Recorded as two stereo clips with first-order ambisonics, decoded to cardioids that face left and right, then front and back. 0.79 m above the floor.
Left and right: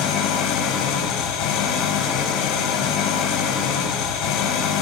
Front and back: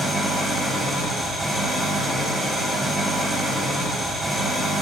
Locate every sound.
0.0 s an engine running: 105° left, 4 m